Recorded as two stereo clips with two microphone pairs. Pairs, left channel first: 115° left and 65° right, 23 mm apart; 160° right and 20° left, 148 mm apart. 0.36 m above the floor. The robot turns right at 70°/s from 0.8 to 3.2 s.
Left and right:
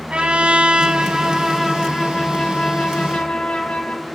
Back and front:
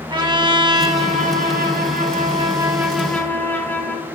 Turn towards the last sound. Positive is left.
turn(degrees=130)